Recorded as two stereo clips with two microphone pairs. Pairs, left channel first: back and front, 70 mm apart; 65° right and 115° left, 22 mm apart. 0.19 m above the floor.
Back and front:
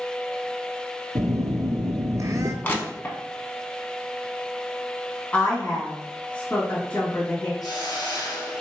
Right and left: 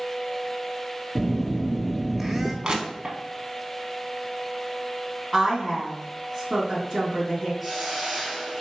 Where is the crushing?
135° left, 0.7 m.